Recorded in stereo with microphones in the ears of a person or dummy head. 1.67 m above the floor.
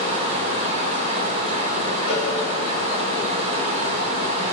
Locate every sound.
0.0 s running water: 30° right (ahead or behind), 1.3 m
2.1 s a cowbell: 45° left (ahead or behind), 4 m